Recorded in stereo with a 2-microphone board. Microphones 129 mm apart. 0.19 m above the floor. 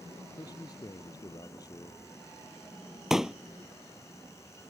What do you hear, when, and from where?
0.4 s a man speaking: 30° left (ahead or behind)
3.1 s a pop: 5° right (ahead or behind)